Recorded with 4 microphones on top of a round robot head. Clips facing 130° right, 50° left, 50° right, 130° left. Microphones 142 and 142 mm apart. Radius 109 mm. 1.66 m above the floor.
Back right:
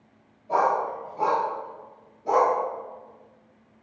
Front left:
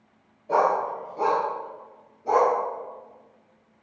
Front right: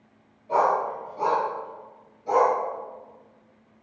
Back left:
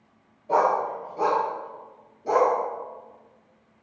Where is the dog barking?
85° left, 2.0 m; by 2.5 s 155° left, 1.5 m.